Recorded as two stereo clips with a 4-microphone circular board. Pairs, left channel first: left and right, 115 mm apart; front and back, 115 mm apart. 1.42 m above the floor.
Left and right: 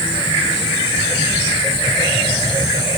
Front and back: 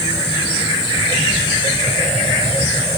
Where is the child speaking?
No child speaking in this recording.